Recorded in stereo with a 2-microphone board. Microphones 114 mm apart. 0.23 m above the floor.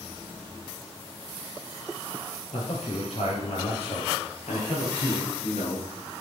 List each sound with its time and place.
2.5 s a man speaking: 75° left (ahead or behind), 4.5 m; by 5.9 s 65° left (ahead or behind), 3 m